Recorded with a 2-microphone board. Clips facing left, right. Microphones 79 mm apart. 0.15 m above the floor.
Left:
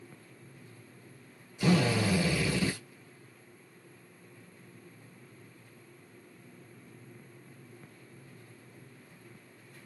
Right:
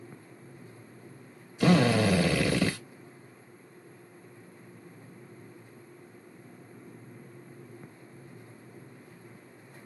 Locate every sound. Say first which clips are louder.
1.6 s a drill: right 4 dB; 60° right (ahead or behind), 0.9 m